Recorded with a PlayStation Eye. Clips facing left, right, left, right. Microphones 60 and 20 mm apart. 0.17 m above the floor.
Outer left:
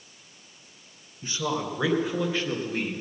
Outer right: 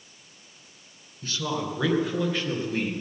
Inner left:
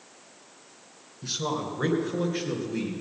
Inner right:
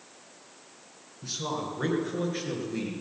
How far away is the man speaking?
About 2 m.